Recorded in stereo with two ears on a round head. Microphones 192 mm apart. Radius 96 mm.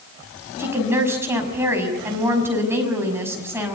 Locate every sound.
0.6 s a woman speaking: 10° right (ahead or behind), 6 m